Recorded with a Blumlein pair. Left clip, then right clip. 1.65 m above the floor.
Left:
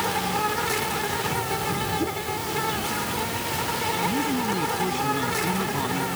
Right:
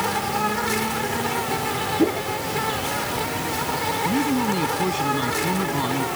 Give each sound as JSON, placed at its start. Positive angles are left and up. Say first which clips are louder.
{"t": 0.0, "sound": "an insect", "louder": "right 2 dB", "azimuth_deg": -5}
{"t": 2.0, "sound": "a whoosh", "louder": "right 6 dB", "azimuth_deg": -25}
{"t": 4.0, "sound": "a man speaking", "louder": "right 3 dB", "azimuth_deg": -15}